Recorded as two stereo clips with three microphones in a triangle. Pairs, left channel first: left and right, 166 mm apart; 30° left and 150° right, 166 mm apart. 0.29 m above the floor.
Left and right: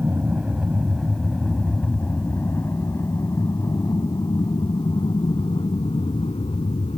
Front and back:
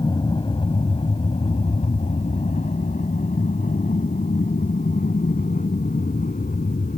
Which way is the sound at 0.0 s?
15° right.